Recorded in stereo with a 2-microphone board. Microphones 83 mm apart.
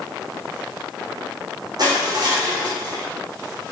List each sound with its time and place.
1.8 s crushing: 60° right (ahead or behind), 5 m